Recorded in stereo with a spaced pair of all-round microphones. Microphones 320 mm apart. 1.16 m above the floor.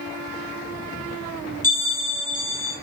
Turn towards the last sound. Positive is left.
turn(degrees=25)  # may be behind; listen again after turning